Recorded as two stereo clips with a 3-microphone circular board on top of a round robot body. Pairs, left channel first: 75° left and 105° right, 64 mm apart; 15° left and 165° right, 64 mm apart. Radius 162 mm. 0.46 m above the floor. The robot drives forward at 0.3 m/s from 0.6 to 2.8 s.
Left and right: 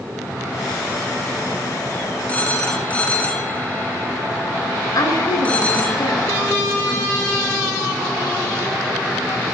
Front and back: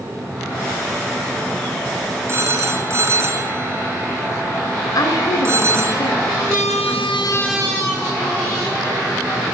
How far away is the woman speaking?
About 9.5 m.